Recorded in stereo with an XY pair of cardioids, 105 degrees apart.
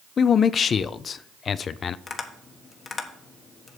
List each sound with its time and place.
0.2 s a man speaking: 50° left, 0.5 m
2.1 s tapping: 45° left, 1.2 m